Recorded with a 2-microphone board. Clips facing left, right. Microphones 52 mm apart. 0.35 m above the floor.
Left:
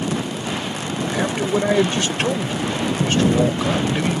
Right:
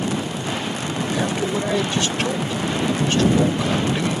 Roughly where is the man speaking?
Left.